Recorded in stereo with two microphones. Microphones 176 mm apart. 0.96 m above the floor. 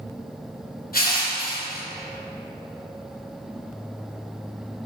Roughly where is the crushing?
Left.